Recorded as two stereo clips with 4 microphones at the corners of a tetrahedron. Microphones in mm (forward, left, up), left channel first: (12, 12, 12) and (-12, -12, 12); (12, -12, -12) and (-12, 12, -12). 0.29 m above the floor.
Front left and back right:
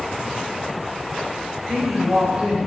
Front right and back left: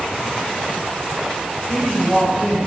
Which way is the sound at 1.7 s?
135° right.